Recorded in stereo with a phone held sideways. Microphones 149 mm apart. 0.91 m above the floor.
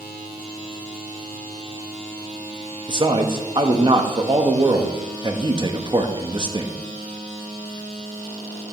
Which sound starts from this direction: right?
A man speaking, at 2.9 s.